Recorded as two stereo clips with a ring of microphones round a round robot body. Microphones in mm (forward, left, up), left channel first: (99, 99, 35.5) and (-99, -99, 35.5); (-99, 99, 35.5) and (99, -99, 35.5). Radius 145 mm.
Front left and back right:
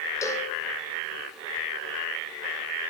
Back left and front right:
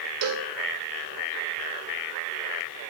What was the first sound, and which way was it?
A cowbell, 35° right.